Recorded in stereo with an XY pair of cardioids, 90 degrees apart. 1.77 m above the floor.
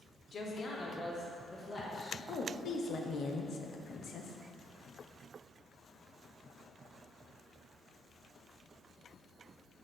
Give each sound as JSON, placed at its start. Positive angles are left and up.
{"t": 0.3, "sound": "a woman speaking", "azimuth_deg": 55, "distance_m": 1.1}
{"t": 2.3, "sound": "a woman speaking", "azimuth_deg": 60, "distance_m": 0.8}